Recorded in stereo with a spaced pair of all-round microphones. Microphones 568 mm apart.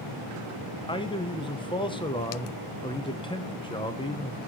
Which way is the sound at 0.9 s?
10° left (ahead or behind).